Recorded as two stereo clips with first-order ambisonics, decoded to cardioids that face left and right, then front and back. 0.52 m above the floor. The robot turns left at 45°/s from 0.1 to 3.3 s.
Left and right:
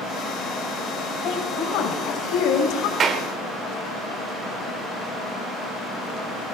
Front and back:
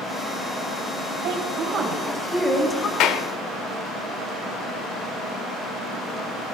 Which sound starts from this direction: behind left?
A woman speaking, at 1.2 s.